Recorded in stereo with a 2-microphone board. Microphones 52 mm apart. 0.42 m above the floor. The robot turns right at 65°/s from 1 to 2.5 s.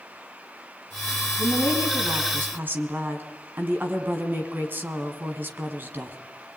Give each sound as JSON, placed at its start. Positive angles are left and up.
{"t": 1.4, "sound": "a woman speaking", "azimuth_deg": -115, "distance_m": 3.5}